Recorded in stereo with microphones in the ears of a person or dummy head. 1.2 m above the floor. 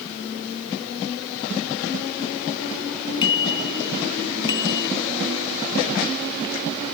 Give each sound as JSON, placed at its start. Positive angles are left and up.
{"t": 3.2, "sound": "a bicycle bell", "side_deg": 30}